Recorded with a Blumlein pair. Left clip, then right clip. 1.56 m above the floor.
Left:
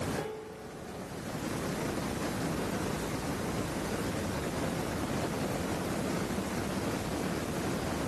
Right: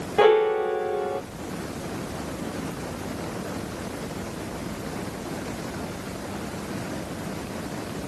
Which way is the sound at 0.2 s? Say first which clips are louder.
Right 21 dB; 50° right.